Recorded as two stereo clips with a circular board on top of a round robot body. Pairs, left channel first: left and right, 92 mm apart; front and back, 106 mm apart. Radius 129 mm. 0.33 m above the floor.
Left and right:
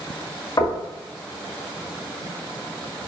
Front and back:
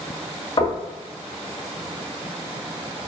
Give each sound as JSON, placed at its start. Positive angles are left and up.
{"t": 0.6, "sound": "knocking", "azimuth_deg": 45, "distance_m": 2.5}